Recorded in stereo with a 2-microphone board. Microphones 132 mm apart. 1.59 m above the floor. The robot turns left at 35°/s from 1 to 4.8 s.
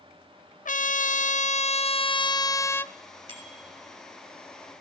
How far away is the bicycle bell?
About 6 m.